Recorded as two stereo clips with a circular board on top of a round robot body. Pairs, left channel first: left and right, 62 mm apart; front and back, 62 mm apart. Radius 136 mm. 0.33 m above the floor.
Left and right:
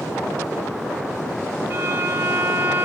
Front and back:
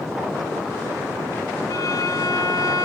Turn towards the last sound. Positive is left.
turn(degrees=-40)